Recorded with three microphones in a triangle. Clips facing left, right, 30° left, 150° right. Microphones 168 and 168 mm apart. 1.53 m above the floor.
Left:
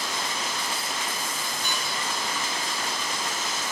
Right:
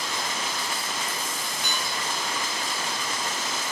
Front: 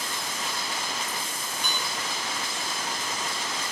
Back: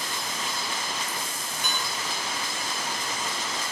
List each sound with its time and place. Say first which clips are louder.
1.6 s dishes clattering: right 1 dB, back 2 dB; 80° right, 3.5 m